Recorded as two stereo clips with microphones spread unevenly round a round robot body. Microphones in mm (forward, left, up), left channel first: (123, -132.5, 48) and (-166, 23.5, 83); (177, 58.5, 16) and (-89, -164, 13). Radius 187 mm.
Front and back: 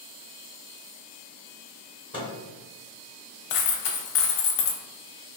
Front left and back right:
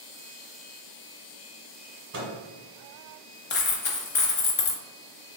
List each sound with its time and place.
2.1 s a microwave: 95° right, 1.5 m
3.5 s a dropped coin: 20° right, 0.8 m